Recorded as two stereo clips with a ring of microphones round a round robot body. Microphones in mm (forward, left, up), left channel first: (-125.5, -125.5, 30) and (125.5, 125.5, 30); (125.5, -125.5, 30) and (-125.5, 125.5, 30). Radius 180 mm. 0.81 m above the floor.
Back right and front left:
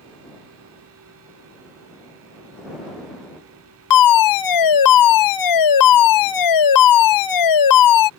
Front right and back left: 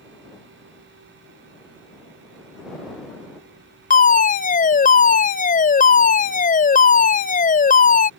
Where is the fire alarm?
110° right.